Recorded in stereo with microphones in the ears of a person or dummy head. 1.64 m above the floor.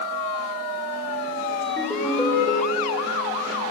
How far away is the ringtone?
About 4.5 m.